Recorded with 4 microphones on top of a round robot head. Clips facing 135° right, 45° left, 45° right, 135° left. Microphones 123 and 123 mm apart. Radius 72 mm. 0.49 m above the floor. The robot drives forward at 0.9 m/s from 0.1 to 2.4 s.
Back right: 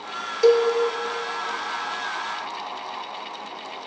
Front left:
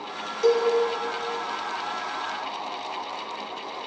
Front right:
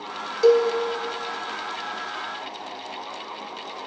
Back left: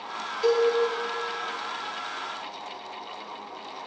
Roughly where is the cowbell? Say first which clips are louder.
Back right 4 dB, front right 5 dB; right.